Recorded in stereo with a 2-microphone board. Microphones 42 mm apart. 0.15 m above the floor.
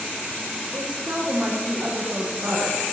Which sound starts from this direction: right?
A woman speaking, at 0.7 s.